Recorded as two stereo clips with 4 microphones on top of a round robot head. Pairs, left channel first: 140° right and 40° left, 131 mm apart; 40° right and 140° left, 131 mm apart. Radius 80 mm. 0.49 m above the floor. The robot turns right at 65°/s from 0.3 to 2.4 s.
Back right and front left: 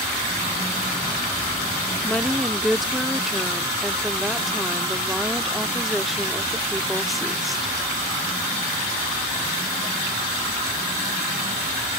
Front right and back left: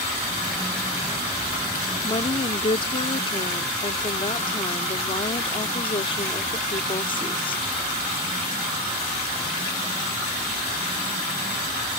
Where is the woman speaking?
70° right; by 7.8 s 50° right.